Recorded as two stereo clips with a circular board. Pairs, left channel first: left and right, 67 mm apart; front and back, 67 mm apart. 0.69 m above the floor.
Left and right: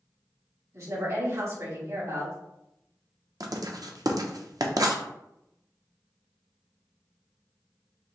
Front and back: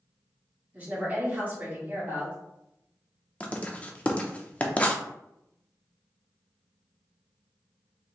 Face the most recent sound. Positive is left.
turn(degrees=-70)